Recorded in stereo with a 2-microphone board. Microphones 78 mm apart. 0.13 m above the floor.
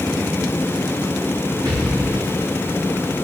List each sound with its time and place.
1.6 s an explosion: 65° right (ahead or behind), 3.5 m